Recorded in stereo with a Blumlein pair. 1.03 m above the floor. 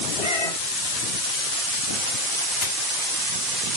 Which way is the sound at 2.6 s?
45° left.